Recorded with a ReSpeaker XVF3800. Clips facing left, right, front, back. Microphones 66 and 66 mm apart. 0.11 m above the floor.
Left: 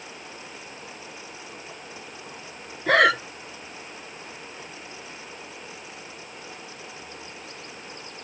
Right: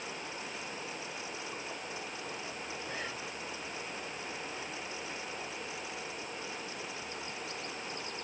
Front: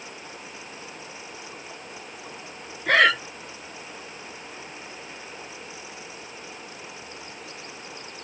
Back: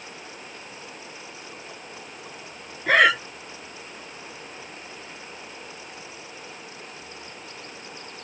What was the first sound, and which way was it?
Breathing, 95° left.